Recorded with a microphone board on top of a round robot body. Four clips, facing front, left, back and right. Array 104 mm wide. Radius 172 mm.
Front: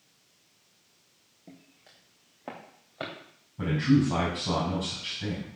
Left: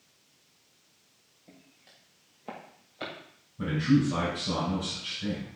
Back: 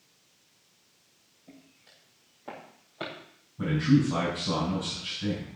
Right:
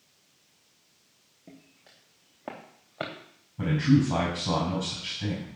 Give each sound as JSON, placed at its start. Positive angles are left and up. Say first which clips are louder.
{"t": 1.5, "sound": "footsteps", "louder": "right 5 dB, front 1 dB", "azimuth_deg": -45, "distance_m": 3.5}
{"t": 3.6, "sound": "a man speaking", "louder": "right 2 dB, even", "azimuth_deg": -60, "distance_m": 4.5}